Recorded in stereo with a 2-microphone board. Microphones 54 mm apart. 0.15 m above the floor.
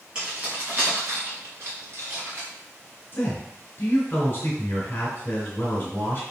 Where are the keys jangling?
20° right (ahead or behind), 1.3 m; by 2.5 s 60° right (ahead or behind), 1.9 m.